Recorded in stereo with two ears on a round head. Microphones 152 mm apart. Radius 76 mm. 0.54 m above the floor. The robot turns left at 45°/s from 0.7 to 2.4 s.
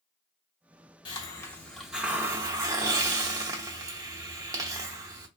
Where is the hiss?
35° left, 0.8 m; by 5.3 s 25° right, 0.8 m.